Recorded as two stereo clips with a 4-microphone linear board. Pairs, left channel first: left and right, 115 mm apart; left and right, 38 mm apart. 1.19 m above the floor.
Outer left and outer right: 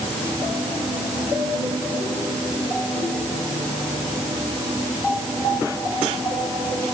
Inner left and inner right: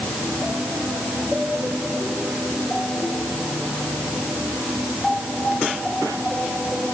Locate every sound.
Only background noise.